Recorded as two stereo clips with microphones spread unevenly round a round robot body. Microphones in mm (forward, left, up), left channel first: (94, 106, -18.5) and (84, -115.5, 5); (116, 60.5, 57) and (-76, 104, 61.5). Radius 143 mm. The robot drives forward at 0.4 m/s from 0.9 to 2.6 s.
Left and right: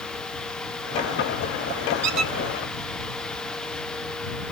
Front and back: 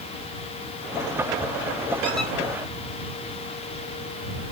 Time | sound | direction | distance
2.0 | a squeak | 95° right | 0.9 m